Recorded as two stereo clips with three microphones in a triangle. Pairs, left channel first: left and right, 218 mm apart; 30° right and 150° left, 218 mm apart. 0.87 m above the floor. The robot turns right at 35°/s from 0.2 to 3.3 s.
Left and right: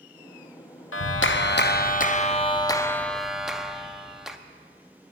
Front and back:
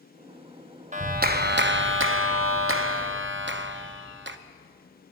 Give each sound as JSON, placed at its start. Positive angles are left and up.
{"t": 0.9, "sound": "a clap", "azimuth_deg": 100, "distance_m": 0.6}